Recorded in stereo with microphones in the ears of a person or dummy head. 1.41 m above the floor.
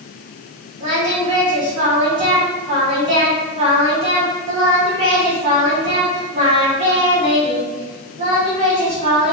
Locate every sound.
0.8 s singing: 30° right (ahead or behind), 1.1 m